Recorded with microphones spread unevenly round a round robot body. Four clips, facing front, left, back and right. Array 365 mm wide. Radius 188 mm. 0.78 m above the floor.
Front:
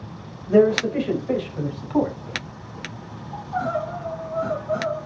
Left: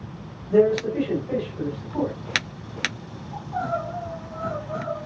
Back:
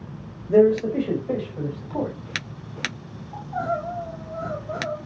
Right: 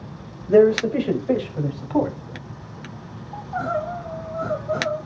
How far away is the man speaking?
About 4 m.